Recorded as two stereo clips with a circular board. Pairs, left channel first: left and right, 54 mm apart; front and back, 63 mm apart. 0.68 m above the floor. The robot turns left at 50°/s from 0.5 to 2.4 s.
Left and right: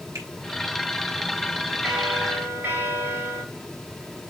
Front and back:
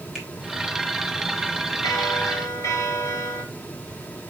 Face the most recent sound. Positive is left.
turn(degrees=-35)